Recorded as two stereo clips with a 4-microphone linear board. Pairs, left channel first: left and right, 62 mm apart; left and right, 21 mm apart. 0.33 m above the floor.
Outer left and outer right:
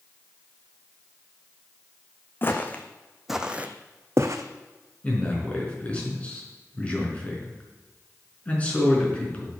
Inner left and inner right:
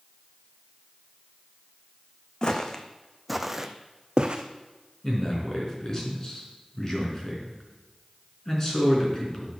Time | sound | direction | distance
2.4 | footsteps | 35° left (ahead or behind) | 1.2 m
5.0 | a man speaking | 25° left (ahead or behind) | 4 m